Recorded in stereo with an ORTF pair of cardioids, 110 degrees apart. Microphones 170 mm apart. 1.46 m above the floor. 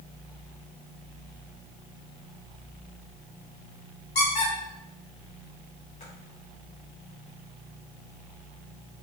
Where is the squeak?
45° left, 1.6 m.